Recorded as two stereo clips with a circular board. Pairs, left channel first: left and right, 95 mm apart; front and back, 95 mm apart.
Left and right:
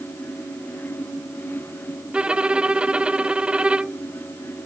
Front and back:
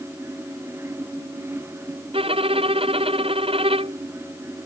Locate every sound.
2.1 s a violin: 170° right